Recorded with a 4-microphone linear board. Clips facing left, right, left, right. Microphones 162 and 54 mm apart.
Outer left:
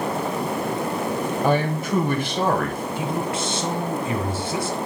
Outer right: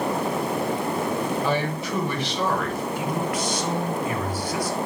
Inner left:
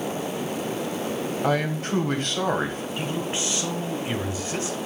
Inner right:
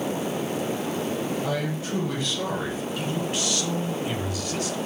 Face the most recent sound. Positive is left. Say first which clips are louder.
# outer left 2 dB, inner left 1 dB
turn(degrees=25)  # may be behind; listen again after turning